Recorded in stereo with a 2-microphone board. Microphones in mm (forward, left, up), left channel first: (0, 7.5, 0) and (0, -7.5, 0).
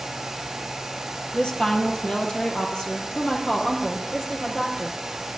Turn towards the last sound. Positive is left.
turn(degrees=60)  # may be behind; listen again after turning